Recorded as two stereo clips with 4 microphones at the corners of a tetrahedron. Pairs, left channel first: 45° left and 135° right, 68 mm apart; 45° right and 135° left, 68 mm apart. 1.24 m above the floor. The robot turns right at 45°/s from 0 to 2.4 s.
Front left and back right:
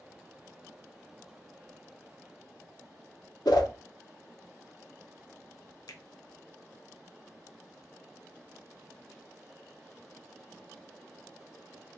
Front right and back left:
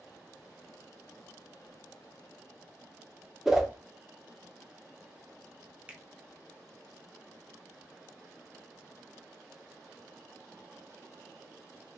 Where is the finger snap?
65° left, 0.6 m.